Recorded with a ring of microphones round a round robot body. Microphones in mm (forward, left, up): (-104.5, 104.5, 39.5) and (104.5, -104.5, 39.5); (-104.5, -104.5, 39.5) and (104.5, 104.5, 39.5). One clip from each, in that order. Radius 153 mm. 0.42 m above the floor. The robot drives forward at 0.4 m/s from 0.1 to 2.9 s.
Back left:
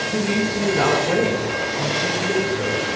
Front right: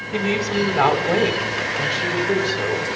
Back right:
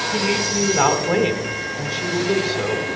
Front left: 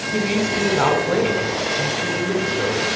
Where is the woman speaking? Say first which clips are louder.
Front right 1 dB, front left 2 dB; 60° right, 3 m; by 2.9 s 85° right, 3 m.